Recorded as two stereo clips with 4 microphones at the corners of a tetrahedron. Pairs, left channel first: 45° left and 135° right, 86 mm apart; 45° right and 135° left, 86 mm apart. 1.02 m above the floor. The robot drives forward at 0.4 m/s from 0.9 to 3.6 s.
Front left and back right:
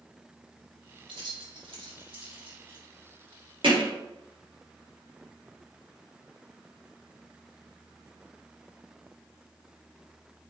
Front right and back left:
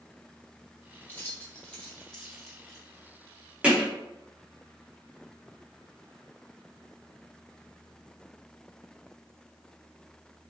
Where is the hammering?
150° right, 1.4 m.